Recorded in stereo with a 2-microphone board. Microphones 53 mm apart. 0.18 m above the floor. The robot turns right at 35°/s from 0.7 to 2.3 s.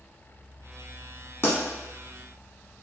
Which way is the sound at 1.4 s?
45° left (ahead or behind).